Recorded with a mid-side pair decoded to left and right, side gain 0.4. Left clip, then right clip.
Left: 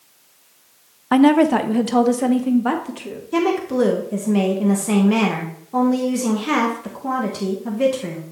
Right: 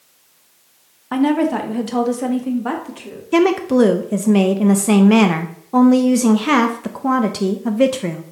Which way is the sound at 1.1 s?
45° left.